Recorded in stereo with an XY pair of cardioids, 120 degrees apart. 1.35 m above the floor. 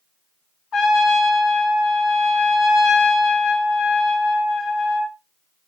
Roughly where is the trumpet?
Ahead left.